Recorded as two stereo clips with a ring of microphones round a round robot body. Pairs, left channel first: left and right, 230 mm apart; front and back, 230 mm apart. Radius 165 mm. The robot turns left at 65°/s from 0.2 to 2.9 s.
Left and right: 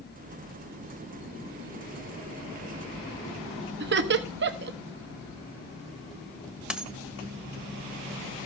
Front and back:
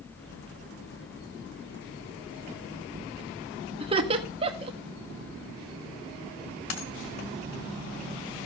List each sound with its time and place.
3.8 s laughter: 115° right, 0.9 m
6.7 s a dropped coin: 5° right, 1.9 m